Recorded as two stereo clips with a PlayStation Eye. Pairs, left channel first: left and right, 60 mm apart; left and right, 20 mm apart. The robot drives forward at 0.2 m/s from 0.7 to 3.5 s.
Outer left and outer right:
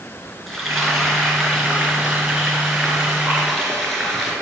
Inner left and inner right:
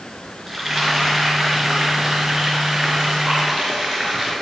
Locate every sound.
0.5 s frying: centre (ahead or behind), 3.5 m